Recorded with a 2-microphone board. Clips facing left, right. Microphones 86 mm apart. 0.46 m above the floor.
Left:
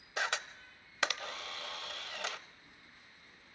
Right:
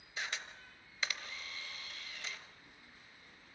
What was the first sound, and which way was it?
A camera shutter, 75° left (ahead or behind).